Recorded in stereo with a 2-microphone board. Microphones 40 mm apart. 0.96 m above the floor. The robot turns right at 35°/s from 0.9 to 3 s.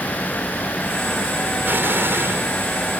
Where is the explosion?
55° right (ahead or behind); by 2.5 s 80° right.